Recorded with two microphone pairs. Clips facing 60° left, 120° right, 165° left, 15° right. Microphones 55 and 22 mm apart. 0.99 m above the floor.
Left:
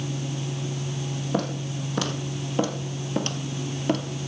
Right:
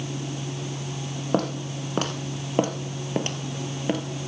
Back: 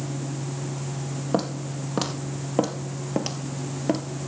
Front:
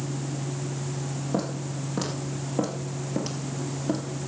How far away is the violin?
I don't hear a violin.